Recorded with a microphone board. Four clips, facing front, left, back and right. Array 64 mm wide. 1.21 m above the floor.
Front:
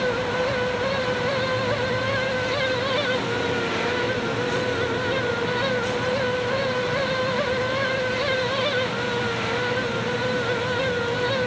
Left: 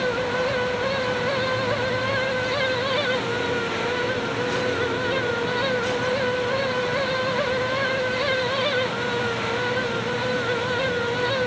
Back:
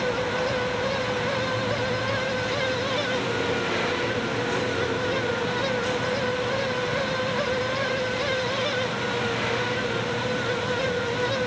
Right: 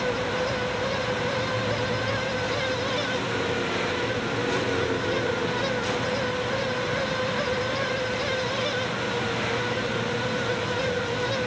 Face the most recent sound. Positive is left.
No sound to turn to.